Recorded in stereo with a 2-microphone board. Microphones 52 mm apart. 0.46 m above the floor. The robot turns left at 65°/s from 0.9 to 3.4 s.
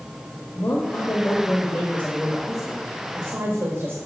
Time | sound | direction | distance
0.6 | a woman speaking | 95° left | 1.4 m